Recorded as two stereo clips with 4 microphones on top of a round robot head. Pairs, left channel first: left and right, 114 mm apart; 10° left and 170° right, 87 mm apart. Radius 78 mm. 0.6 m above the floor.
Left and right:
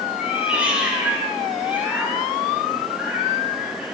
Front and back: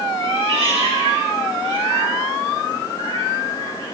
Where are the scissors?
I don't hear scissors.